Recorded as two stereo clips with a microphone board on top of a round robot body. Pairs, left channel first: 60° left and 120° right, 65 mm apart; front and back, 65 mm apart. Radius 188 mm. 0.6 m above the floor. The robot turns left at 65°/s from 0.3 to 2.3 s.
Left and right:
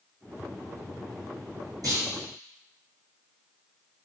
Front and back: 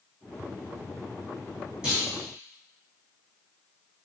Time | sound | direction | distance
1.8 | a clunk | 100° right | 2.0 m